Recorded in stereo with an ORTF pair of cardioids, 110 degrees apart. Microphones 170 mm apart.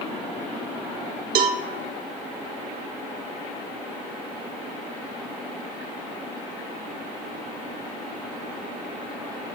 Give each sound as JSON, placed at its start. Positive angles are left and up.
{"t": 1.4, "sound": "a cowbell", "azimuth_deg": -70, "distance_m": 1.4}